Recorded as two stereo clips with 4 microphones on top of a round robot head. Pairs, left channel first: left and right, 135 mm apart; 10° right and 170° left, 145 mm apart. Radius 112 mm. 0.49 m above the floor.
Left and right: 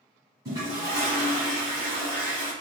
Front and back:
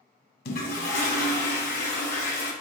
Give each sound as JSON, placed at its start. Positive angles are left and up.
{"t": 0.5, "sound": "a toilet flushing", "azimuth_deg": -20, "distance_m": 1.5}